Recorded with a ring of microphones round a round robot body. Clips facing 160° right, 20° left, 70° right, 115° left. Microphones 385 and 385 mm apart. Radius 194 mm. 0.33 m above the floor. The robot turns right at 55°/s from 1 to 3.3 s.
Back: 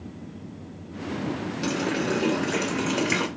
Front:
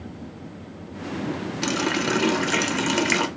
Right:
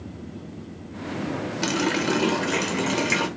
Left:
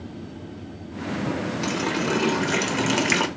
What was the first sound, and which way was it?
A running tap, 10° right.